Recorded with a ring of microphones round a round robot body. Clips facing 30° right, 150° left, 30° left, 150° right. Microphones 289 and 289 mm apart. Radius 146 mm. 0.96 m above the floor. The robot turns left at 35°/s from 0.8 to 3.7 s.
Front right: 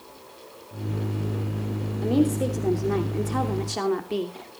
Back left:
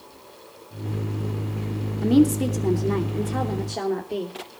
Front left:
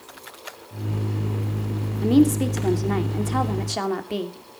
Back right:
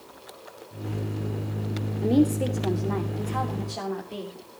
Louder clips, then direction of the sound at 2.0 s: Back left 4 dB, front left 4 dB; 100° left.